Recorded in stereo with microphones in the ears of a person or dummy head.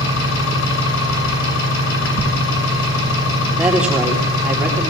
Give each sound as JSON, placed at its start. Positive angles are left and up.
{"t": 0.0, "sound": "an engine running", "side_deg": 75, "distance_m": 6.5}
{"t": 3.6, "sound": "a woman speaking", "side_deg": -10, "distance_m": 3.0}